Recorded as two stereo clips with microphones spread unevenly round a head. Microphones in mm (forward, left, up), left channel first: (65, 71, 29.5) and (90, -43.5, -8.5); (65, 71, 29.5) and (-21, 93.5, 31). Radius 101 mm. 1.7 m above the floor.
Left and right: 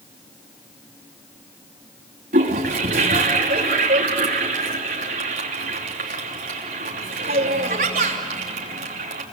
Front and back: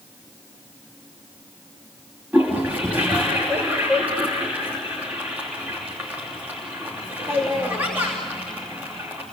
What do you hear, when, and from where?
2.3 s a toilet flushing: 115° right, 3 m